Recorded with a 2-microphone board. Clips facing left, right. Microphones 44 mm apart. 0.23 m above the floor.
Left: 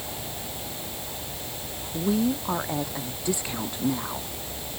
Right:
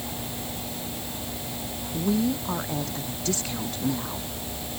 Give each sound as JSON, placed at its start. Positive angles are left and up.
{"t": 1.9, "sound": "a woman speaking", "side_deg": 15}